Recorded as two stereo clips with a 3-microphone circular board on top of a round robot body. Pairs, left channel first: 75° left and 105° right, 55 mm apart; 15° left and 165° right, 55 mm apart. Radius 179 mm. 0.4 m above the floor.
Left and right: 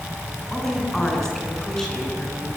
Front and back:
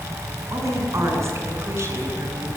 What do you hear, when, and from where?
0.5 s a woman speaking: 160° left, 7 m; by 2.5 s 155° left, 8 m